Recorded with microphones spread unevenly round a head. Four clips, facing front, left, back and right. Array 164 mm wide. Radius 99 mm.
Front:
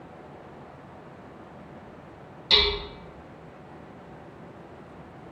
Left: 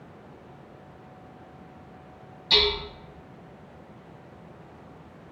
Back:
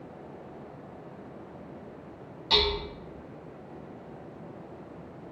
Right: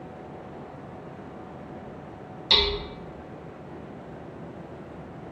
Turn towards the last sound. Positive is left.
turn(degrees=-60)